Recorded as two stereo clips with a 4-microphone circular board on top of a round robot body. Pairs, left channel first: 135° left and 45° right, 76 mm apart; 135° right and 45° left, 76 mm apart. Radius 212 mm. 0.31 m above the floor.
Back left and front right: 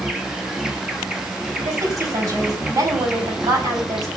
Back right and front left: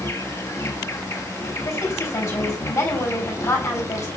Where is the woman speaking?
85° right, 5 m.